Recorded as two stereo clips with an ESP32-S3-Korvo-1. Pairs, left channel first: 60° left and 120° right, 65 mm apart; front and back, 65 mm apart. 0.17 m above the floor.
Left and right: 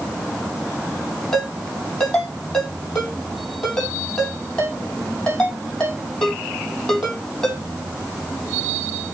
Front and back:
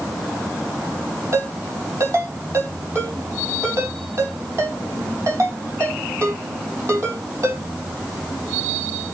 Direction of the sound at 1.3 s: 140° left.